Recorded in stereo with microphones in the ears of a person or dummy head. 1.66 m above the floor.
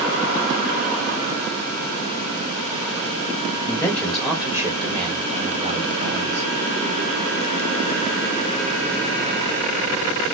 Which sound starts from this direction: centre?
A man speaking, at 3.7 s.